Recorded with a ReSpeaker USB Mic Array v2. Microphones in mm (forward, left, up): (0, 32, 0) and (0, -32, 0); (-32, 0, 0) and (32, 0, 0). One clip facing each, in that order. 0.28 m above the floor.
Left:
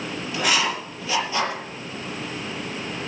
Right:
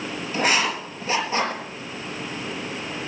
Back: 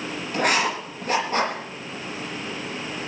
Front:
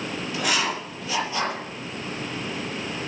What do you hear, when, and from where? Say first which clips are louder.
0.3 s writing: right 1 dB, back 4 dB; 145° right, 6 m